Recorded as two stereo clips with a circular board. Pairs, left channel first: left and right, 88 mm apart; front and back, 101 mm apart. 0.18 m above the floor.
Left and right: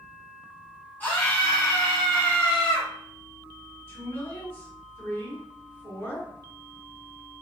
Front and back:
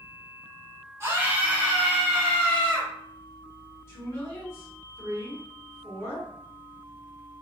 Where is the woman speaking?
45° left, 2.0 m.